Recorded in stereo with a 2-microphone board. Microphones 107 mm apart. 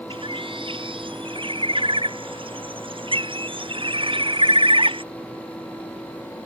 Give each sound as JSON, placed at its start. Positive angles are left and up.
{"t": 0.1, "sound": "a bird", "side_deg": -50}